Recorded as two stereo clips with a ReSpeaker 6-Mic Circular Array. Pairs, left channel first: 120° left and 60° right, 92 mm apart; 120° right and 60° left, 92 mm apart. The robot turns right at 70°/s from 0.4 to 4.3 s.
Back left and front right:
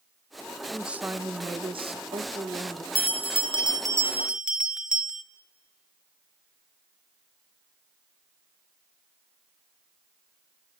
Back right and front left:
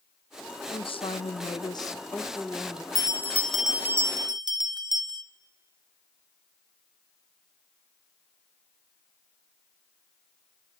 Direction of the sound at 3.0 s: 75° right.